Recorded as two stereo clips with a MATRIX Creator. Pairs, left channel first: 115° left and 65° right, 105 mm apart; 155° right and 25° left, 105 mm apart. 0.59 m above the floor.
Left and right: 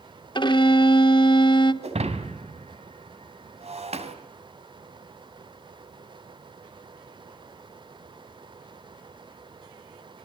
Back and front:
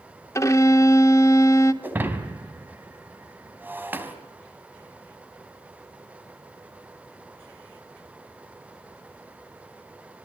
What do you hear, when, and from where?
0.3 s a violin: 145° left, 1.3 m
1.8 s breaking glass: 50° right, 3 m